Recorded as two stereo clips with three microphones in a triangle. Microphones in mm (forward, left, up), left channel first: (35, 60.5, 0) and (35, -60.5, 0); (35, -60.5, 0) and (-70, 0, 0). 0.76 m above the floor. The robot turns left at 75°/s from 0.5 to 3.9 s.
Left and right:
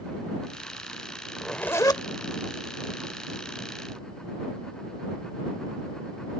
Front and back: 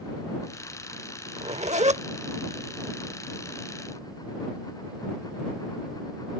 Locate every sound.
1.4 s a zipper: 175° right; by 2.0 s 135° left